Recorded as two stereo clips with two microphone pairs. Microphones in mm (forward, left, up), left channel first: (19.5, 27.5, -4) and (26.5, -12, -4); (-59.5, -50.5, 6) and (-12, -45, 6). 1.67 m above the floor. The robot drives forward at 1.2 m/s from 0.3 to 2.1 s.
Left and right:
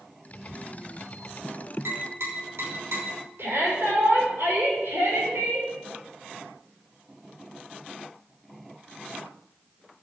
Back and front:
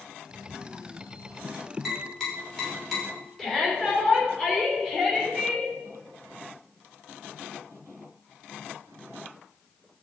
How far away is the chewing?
I don't hear chewing.